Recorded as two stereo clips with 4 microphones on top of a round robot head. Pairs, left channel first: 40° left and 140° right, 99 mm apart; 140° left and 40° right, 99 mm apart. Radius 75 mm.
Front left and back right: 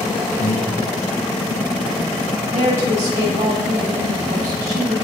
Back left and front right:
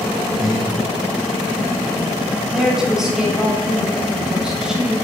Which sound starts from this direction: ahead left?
Breathing, at 0.4 s.